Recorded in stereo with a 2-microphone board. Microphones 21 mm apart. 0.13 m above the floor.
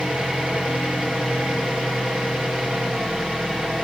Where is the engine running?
65° right (ahead or behind), 7.5 m.